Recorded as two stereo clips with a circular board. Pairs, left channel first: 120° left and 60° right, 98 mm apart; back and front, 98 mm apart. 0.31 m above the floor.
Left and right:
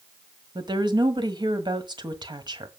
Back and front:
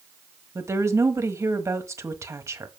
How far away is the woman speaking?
About 1.6 m.